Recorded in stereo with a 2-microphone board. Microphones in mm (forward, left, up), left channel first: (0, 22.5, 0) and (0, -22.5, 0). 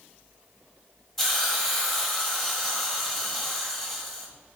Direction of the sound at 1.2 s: 5° left (ahead or behind).